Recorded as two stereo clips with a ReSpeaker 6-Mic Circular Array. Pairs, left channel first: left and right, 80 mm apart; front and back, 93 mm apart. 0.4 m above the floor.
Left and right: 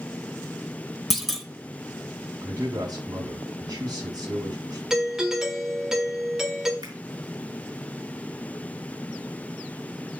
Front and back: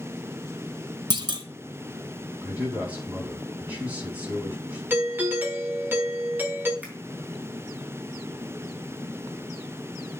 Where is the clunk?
175° left, 0.9 m.